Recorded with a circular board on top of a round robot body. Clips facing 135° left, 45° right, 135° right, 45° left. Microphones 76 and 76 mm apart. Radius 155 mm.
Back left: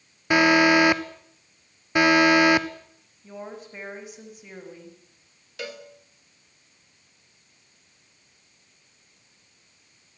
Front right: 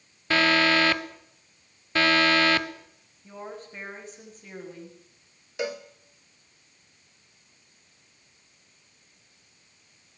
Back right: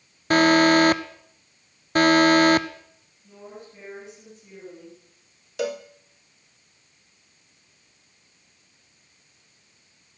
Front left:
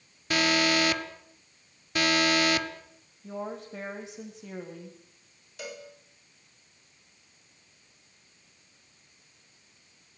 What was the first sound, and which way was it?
An alarm, 155° right.